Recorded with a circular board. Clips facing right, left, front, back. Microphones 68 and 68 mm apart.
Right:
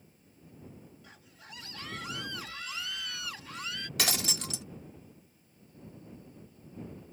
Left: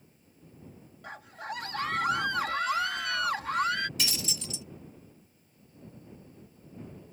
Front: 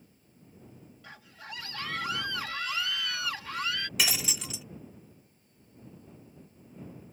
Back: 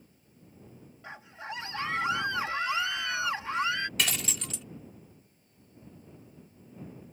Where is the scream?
115° left.